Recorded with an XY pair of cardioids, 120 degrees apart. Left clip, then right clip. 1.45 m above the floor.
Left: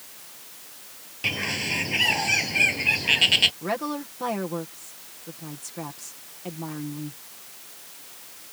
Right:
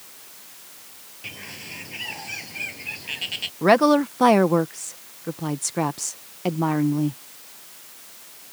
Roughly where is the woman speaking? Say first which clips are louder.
Right 13 dB; ahead right.